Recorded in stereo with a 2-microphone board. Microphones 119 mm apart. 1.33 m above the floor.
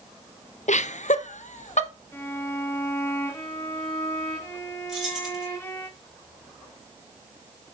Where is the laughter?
80° left, 0.5 m; by 1.9 s 85° left, 1.3 m.